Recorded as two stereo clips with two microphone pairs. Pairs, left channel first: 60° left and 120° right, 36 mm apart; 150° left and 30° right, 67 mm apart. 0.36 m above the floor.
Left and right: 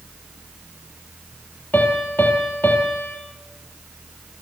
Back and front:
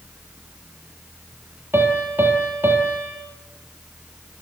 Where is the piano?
25° left, 5 m.